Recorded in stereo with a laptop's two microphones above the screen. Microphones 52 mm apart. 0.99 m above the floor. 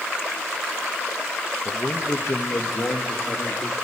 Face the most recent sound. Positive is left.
turn(degrees=60)  # may be behind; listen again after turning